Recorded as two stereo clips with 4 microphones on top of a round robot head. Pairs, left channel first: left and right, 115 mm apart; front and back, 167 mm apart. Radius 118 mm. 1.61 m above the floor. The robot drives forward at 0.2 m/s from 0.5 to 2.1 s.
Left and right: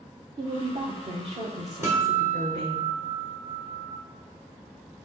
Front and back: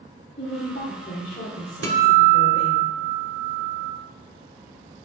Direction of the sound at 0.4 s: 55° right.